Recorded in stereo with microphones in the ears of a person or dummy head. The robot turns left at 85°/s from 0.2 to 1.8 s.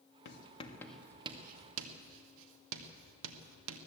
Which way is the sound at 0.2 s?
55° left (ahead or behind).